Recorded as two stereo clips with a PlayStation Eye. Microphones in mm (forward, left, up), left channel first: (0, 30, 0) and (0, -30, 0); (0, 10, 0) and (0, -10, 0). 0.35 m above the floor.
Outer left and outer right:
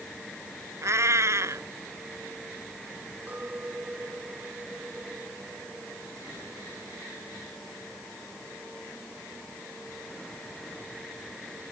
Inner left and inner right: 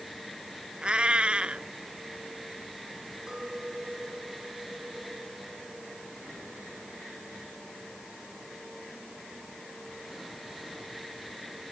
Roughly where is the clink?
Right.